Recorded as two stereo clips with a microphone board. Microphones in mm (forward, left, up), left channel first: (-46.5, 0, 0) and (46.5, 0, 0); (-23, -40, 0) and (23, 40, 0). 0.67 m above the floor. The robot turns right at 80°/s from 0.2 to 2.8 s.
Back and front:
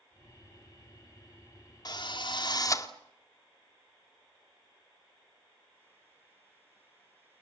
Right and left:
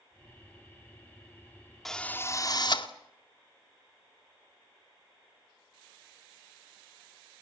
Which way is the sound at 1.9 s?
155° left.